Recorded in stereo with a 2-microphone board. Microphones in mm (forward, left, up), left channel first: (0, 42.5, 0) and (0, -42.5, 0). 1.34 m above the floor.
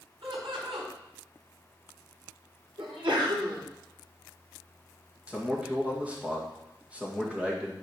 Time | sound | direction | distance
0.2 | laughter | 80° right | 4.5 m
2.8 | a sneeze | 85° right | 4 m
5.3 | a man speaking | 15° right (ahead or behind) | 2 m